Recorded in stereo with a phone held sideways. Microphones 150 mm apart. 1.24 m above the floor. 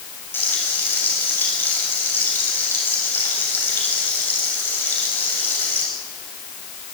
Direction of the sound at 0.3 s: 15° left (ahead or behind).